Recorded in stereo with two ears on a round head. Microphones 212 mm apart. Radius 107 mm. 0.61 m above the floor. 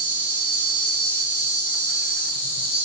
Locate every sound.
0.0 s an insect: 10° left (ahead or behind), 3.5 m